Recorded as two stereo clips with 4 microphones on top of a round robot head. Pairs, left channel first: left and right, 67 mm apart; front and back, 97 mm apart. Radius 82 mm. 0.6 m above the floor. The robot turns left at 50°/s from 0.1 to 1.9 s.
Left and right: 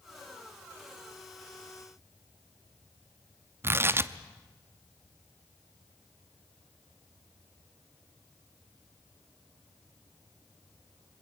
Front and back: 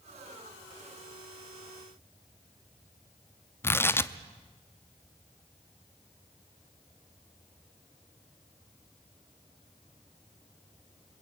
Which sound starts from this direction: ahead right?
Tearing paper, at 3.6 s.